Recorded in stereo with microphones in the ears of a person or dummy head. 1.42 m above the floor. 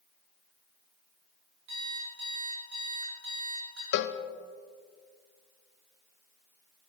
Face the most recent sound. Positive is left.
turn(degrees=70)  # may be behind; listen again after turning